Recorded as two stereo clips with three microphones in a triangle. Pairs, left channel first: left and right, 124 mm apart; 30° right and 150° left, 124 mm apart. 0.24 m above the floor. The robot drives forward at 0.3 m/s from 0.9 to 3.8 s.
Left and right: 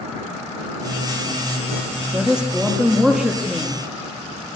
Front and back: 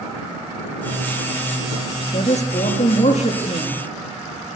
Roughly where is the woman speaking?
Ahead.